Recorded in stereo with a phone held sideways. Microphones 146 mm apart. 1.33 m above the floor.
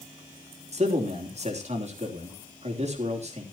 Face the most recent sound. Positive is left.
turn(degrees=-50)  # may be behind; listen again after turning